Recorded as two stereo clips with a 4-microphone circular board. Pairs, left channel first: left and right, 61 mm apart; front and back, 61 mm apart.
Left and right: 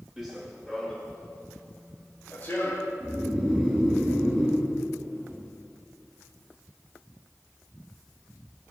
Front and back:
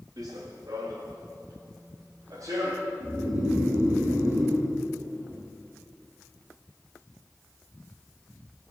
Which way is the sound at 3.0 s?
160° right.